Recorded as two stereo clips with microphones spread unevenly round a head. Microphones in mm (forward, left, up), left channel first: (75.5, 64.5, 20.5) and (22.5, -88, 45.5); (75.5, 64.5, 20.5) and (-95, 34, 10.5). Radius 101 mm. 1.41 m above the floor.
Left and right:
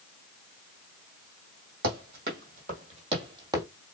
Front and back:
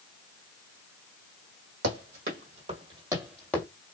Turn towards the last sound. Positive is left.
turn(degrees=-55)